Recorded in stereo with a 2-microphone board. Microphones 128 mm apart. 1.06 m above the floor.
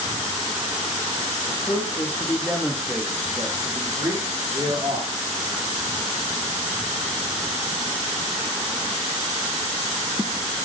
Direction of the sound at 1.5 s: 35° left (ahead or behind).